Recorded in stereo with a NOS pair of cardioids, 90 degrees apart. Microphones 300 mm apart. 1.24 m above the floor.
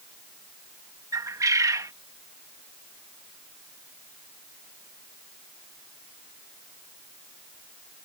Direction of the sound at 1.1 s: 10° right.